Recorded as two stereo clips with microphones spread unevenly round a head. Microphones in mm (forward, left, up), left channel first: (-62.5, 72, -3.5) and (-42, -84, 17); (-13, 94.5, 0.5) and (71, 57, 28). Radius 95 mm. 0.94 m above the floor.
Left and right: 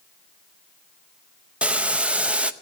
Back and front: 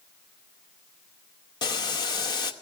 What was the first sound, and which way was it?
Boiling, 170° right.